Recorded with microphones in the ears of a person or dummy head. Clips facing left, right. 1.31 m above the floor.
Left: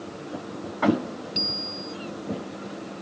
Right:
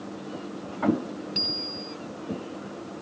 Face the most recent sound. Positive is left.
turn(degrees=-15)  # may be behind; listen again after turning